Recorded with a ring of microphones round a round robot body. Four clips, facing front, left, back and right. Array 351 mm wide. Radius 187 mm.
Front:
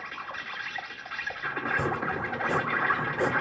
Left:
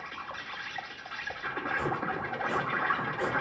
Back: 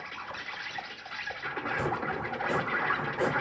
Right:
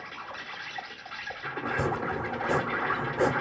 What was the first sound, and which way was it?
An insect, 5° left.